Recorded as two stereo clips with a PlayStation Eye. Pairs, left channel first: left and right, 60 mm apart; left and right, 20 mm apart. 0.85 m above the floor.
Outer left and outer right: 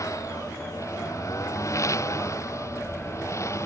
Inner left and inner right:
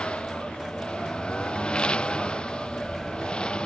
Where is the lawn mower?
55° left (ahead or behind); by 3.7 s 50° left (ahead or behind).